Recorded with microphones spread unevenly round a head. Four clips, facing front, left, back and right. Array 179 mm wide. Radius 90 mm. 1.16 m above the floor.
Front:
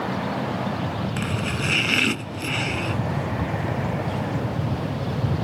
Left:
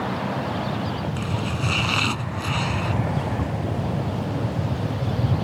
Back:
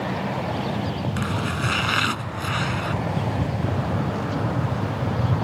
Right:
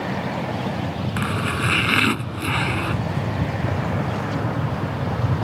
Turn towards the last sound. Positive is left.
turn(degrees=-70)